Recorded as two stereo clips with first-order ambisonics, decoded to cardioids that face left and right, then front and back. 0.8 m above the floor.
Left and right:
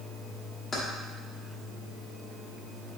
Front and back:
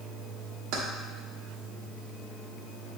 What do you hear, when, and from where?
0.7 s keys jangling: 160° left, 0.9 m